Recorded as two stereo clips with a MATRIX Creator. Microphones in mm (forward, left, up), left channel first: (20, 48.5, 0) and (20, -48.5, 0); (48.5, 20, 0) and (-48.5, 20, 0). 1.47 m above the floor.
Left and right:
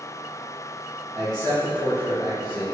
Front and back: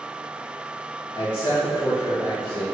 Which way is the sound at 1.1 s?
35° right.